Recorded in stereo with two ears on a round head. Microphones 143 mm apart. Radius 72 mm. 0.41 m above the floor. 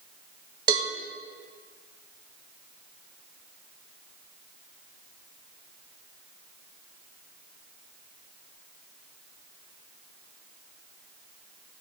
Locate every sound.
0.7 s a cowbell: 30° right (ahead or behind), 1.1 m